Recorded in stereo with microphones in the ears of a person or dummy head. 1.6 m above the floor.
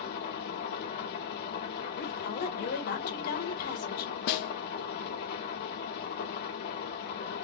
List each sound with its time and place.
0.0 s an engine running: 55° left (ahead or behind), 1.1 m
1.9 s a woman speaking: 50° left (ahead or behind), 1.2 m
4.3 s a snare drum: 60° left (ahead or behind), 0.5 m